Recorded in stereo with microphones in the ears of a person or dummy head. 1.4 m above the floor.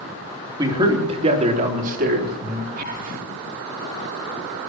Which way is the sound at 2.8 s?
45° right (ahead or behind).